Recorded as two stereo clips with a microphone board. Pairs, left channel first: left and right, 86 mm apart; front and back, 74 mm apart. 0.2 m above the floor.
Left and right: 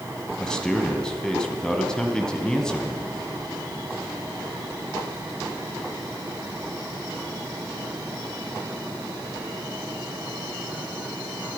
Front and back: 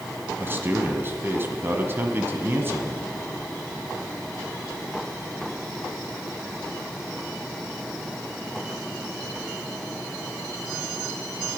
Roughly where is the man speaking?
Behind.